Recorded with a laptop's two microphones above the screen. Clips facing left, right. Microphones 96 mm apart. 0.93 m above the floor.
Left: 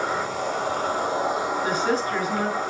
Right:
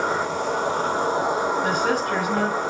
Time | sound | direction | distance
0.0 | an insect | 30° right (ahead or behind) | 7.5 m
1.6 | a woman speaking | 55° right (ahead or behind) | 8.5 m